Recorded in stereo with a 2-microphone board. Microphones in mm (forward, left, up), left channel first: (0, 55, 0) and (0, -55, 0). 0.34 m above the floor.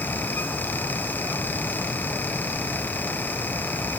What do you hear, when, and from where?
Only background noise.